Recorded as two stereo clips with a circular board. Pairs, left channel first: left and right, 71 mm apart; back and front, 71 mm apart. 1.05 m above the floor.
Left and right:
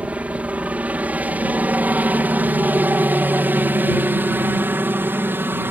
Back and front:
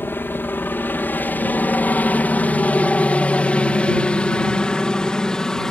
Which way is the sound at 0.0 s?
145° right.